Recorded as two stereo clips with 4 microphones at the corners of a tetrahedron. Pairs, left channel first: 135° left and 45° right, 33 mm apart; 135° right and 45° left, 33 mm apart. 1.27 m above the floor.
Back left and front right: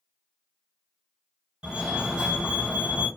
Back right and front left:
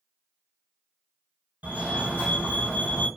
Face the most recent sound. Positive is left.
turn(degrees=15)